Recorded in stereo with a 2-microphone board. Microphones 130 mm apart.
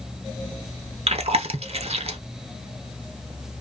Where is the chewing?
55° right (ahead or behind), 0.6 m.